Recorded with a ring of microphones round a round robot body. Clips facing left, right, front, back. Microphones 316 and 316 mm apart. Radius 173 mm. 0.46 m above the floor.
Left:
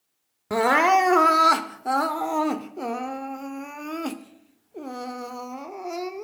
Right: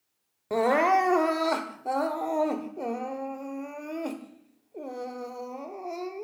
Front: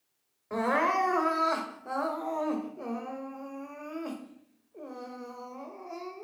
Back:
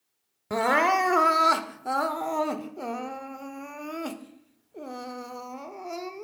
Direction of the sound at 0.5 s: 150° left.